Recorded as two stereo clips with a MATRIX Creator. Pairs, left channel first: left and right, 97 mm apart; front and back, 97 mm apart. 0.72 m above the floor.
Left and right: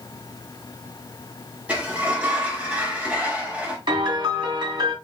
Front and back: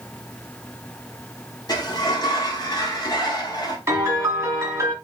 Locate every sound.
1.7 s a sliding door: 20° right, 1.4 m
3.9 s a piano: 120° right, 2.5 m